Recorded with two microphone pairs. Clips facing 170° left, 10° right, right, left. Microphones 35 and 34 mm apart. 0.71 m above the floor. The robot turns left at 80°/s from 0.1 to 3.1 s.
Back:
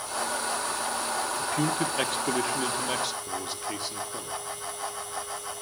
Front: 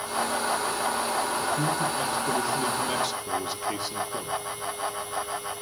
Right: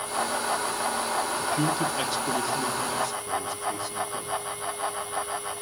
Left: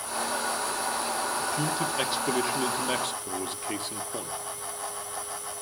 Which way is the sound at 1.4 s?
150° right.